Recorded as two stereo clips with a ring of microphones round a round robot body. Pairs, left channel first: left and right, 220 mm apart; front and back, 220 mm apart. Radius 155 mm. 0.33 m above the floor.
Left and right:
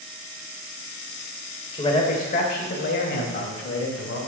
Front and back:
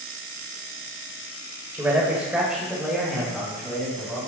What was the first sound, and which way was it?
A man speaking, 115° left.